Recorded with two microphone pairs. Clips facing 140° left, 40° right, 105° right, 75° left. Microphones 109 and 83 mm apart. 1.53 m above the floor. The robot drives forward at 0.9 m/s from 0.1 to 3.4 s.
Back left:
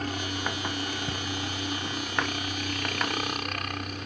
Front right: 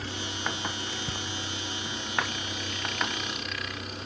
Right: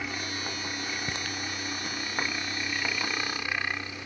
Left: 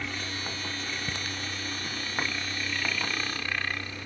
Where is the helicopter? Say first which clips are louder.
Back left 3 dB, right 1 dB; 175° left.